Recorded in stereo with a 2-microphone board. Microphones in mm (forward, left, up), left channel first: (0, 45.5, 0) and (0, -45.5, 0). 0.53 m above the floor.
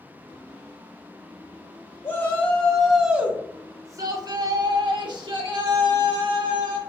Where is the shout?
25° left (ahead or behind), 1.0 m; by 6.8 s 65° right (ahead or behind), 2 m.